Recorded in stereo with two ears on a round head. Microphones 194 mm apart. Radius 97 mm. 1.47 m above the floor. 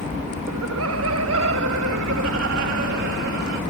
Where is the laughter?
75° right (ahead or behind); by 3.6 s 60° right (ahead or behind).